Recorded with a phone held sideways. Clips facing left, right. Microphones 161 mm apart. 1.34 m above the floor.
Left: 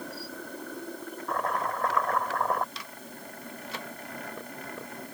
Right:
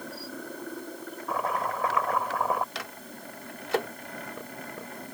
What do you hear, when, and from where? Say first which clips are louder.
1.3 s chopping: right 1 dB; 5° right (ahead or behind)
2.8 s a microwave: right 3 dB; 85° right